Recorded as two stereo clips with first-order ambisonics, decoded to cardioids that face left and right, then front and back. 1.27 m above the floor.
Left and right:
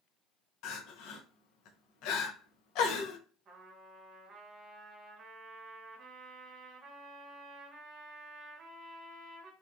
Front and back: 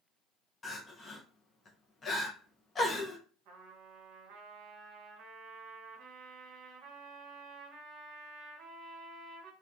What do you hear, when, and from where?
0.6 s crying: 70° left, 0.5 m
3.5 s a trumpet: 150° right, 1.0 m